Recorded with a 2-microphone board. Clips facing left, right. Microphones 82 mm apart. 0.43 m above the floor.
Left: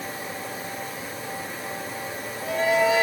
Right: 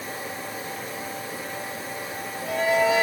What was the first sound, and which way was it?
Only background noise.